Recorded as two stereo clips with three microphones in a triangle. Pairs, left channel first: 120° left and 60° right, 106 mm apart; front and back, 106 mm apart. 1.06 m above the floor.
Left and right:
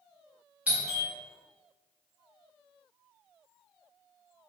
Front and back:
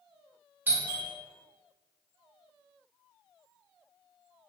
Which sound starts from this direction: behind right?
A doorbell, at 0.7 s.